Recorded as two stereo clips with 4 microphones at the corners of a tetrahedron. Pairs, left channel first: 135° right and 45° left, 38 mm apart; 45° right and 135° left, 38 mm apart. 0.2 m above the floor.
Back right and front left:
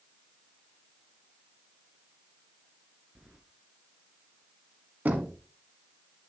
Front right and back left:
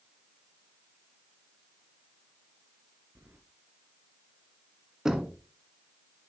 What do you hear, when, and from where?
3.1 s keys jangling: 110° left, 2 m
5.0 s knocking: 60° left, 1.5 m